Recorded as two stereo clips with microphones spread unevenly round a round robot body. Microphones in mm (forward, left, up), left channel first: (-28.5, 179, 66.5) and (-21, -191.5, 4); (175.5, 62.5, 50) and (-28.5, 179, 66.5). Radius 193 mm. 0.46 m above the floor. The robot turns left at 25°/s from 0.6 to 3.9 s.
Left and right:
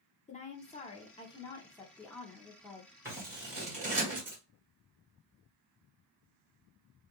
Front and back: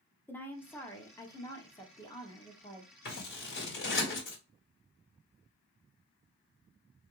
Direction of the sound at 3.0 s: 15° right.